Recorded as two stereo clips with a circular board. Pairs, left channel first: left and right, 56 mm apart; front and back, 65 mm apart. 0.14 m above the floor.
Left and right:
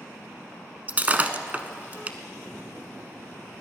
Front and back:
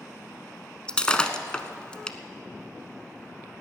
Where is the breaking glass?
60° right, 0.8 m.